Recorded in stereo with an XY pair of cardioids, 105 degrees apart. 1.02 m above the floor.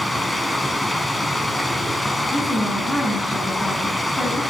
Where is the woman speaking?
25° left, 9 m.